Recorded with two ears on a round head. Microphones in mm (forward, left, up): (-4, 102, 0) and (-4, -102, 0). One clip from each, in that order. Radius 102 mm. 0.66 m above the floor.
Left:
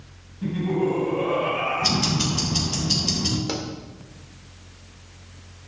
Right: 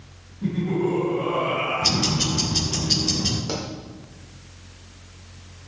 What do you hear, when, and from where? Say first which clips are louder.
0.4 s laughter: left 1 dB; 65° left (ahead or behind), 4.5 m
1.8 s ticking: right 1 dB; 10° left (ahead or behind), 3 m
3.5 s a pop: even; 20° left (ahead or behind), 1.7 m